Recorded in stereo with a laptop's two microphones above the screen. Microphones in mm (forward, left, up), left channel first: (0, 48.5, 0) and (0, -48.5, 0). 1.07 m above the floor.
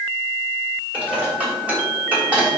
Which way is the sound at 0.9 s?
10° right (ahead or behind).